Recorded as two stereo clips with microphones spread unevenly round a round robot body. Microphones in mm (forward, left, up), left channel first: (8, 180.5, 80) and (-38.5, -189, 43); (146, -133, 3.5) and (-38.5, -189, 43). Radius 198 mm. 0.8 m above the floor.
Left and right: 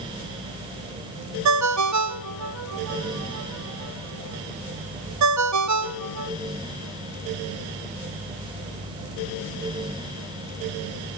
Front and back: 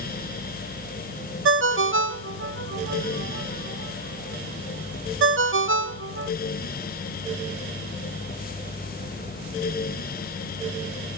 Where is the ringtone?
145° right, 0.8 m.